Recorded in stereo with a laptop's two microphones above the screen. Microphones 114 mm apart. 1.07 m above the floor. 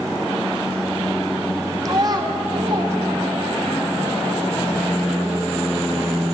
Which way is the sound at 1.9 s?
30° right (ahead or behind).